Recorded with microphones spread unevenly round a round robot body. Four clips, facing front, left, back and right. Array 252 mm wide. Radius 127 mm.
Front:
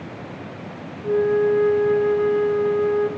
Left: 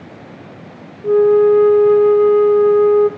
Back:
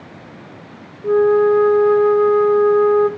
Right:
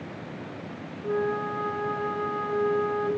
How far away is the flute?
About 0.5 m.